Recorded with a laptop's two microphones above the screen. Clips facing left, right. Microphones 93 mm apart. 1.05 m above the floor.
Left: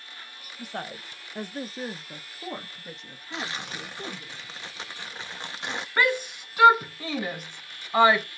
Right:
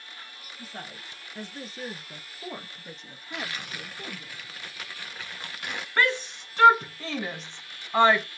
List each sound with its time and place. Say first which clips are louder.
0.6 s a woman speaking: left 6 dB; 70° left (ahead or behind), 0.9 m; by 4.3 s 15° right (ahead or behind), 1.7 m
3.3 s tearing paper: left 2 dB; 25° left (ahead or behind), 0.6 m
6.0 s a shout: left 1 dB; 10° left (ahead or behind), 0.8 m